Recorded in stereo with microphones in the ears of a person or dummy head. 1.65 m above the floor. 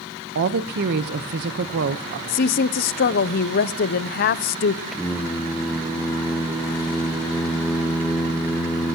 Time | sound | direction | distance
0.3 | a woman speaking | 55° right (ahead or behind) | 1.0 m
2.3 | a woman speaking | 50° left (ahead or behind) | 0.7 m
4.9 | singing | 5° right (ahead or behind) | 1.6 m